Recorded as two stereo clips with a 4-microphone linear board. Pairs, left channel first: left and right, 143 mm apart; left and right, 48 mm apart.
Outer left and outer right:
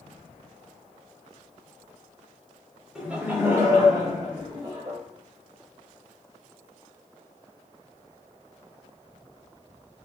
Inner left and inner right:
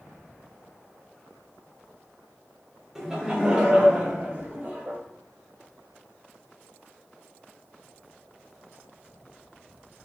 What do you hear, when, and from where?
3.0 s laughter: 5° right (ahead or behind), 1.2 m; by 5.0 s 45° right (ahead or behind), 1.8 m